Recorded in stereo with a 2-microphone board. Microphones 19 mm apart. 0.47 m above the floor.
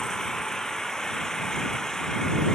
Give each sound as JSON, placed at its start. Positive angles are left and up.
{"t": 0.0, "sound": "an engine running", "side_deg": 40}